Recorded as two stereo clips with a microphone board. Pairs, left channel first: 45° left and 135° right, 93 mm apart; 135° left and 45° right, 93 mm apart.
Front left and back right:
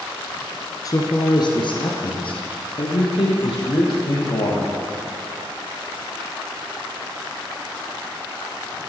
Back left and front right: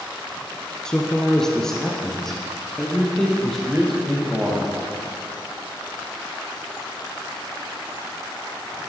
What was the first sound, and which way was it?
A man speaking, 55° left.